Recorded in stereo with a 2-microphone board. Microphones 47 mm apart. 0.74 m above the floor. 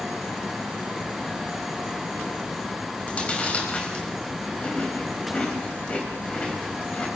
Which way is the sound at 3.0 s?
30° left (ahead or behind).